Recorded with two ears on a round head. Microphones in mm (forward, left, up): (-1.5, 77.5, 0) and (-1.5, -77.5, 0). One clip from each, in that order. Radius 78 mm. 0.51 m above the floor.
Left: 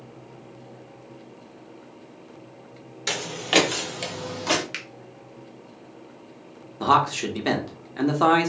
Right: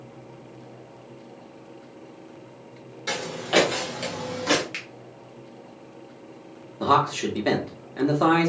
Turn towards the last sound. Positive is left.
turn(degrees=20)  # may be behind; listen again after turning